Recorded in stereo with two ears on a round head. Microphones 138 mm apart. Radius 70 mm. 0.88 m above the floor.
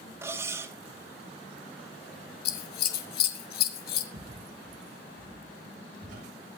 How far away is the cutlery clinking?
About 1.8 m.